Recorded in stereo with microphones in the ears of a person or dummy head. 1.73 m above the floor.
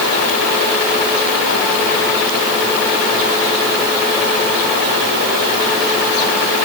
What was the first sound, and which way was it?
Only background noise.